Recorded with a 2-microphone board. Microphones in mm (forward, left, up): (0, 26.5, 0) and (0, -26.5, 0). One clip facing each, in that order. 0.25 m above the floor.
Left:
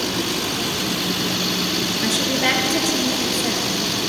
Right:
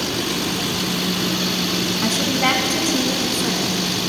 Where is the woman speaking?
50° right (ahead or behind), 2 m; by 3.8 s 65° right (ahead or behind), 2.5 m.